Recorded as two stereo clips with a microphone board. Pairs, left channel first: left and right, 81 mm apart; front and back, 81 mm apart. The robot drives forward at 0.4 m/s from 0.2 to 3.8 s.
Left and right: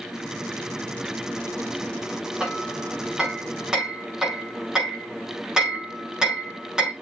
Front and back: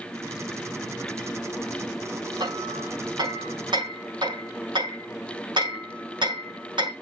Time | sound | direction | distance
2.4 | hammering | 170° right | 4.5 m